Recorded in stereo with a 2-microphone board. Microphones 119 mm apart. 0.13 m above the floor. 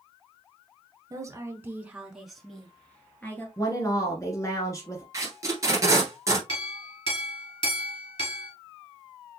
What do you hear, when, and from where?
1.1 s a woman speaking: 30° right (ahead or behind), 1.2 m; by 3.5 s 15° left (ahead or behind), 1.9 m
3.6 s a woman speaking: 30° left (ahead or behind), 1.4 m
5.1 s tape being pulled: 25° right (ahead or behind), 1.6 m
6.5 s a clink: 45° left (ahead or behind), 1.5 m